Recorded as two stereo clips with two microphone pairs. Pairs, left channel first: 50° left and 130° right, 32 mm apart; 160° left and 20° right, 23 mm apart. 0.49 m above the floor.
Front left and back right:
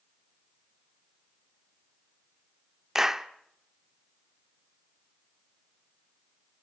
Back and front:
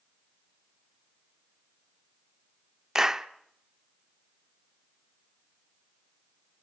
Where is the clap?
65° right, 0.8 m.